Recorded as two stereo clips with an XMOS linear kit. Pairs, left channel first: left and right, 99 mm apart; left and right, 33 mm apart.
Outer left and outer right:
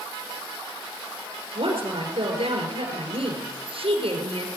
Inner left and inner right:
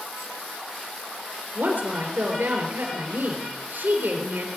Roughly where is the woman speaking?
Right.